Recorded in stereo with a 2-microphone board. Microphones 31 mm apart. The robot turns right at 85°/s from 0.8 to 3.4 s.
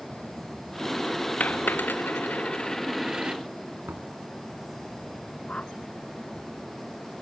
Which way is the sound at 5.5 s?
40° left (ahead or behind).